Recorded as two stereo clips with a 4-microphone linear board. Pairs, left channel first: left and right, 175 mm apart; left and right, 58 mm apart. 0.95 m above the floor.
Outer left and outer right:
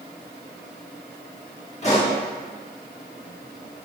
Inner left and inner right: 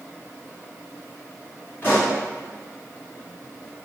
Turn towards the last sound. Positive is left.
turn(degrees=40)  # may be behind; listen again after turning